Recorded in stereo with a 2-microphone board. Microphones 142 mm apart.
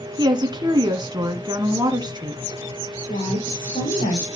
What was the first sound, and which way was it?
A woman speaking, 30° right (ahead or behind).